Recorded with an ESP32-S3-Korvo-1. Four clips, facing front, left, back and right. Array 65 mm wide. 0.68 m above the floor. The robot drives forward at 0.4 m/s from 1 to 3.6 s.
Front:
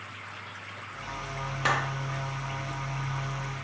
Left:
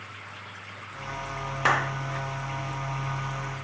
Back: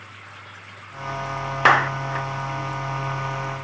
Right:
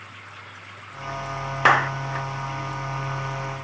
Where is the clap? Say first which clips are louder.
Right 6 dB, back 11 dB; 150° right, 0.7 m; by 2.3 s 160° right, 0.9 m.